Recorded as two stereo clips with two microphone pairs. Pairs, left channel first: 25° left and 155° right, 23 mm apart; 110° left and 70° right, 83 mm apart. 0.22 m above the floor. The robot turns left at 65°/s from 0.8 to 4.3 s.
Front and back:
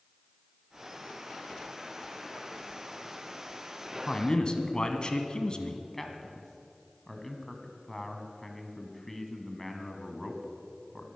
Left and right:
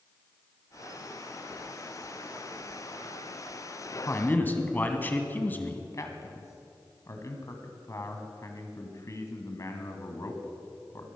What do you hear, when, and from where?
4.1 s a man speaking: 65° left, 1.4 m; by 5.8 s 50° left, 1.4 m
5.9 s a man speaking: 90° left, 1.7 m